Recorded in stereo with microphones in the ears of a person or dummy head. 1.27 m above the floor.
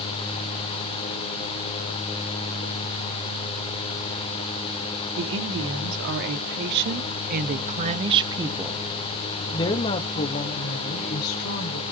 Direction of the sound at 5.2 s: 75° right (ahead or behind).